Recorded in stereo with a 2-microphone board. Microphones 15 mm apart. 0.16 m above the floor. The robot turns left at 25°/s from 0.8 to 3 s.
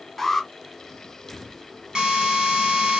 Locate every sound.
0.2 s an alarm: 15° left (ahead or behind), 1.0 m
1.9 s a drill: 60° right (ahead or behind), 1.3 m; by 3.0 s 65° right (ahead or behind), 1.3 m